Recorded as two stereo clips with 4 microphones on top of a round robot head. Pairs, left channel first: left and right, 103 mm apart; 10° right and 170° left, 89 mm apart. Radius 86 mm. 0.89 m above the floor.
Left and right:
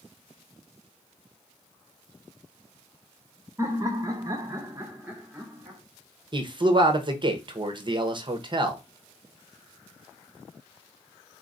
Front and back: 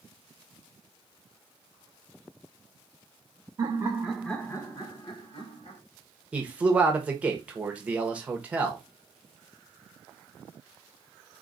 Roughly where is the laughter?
Behind right.